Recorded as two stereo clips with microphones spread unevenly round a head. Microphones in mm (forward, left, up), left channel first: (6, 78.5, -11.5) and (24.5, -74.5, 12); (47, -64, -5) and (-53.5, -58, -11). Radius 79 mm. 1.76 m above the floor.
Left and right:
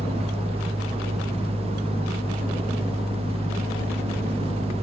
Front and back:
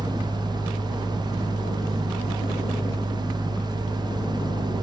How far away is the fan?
About 1.4 m.